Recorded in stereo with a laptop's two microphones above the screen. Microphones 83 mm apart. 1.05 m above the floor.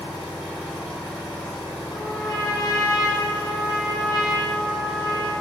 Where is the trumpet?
45° left (ahead or behind), 0.7 m.